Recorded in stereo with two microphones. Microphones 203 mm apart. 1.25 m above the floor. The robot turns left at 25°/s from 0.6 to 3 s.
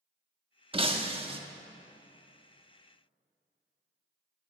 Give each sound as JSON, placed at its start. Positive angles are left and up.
{"t": 0.7, "sound": "breaking glass", "side_deg": -25, "distance_m": 0.7}